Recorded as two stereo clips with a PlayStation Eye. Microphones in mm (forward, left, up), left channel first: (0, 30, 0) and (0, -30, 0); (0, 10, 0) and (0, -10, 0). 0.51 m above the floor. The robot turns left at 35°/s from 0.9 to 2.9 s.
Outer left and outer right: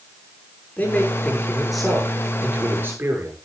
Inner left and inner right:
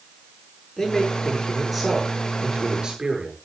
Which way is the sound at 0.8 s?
30° left.